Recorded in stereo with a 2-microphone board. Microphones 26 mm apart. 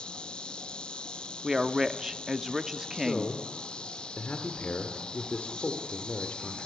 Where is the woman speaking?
15° right (ahead or behind), 0.9 m.